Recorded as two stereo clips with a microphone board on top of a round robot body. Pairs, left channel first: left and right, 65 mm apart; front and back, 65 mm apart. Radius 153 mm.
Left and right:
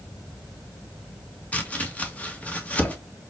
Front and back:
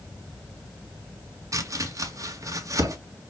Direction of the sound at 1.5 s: 155° left.